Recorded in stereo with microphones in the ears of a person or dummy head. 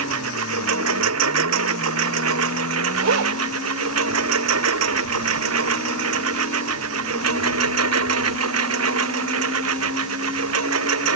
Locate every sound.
0.0 s a lawn mower: 90° right; by 11.2 s 80° right
3.0 s a zipper: 80° right